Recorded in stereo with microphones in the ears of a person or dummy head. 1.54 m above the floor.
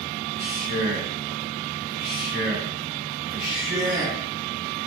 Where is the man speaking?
10° right (ahead or behind), 1.2 m.